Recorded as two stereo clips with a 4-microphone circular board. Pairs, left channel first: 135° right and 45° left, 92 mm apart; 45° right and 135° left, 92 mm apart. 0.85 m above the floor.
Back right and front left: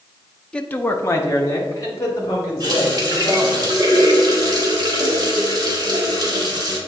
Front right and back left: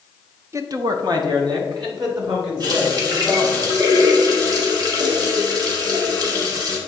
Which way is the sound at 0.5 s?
150° left.